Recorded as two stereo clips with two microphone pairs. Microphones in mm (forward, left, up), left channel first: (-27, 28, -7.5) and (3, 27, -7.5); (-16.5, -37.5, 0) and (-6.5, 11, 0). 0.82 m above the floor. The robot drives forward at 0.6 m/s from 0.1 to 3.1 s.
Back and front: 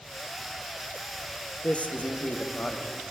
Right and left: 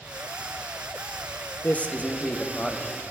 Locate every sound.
1.6 s a man speaking: 150° right, 0.7 m; by 3.0 s 170° right, 1.4 m